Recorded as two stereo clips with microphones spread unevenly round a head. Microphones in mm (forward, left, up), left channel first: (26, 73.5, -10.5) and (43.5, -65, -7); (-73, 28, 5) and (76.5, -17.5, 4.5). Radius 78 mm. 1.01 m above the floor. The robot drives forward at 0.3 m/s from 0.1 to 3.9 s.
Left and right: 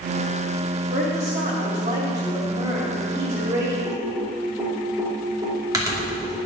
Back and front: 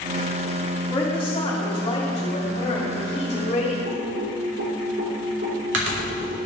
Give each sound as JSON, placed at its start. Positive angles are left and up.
{"t": 0.9, "sound": "a woman speaking", "azimuth_deg": -125, "distance_m": 2.0}
{"t": 3.9, "sound": "typing on a keyboard", "azimuth_deg": -20, "distance_m": 2.5}